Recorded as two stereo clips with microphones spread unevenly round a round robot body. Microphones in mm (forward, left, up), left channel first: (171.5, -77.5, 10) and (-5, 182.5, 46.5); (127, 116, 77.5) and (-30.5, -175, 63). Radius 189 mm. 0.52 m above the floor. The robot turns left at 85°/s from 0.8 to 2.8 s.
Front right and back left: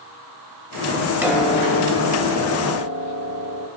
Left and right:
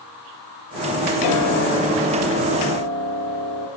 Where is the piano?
40° left, 1.7 m; by 3.7 s 95° right, 1.7 m.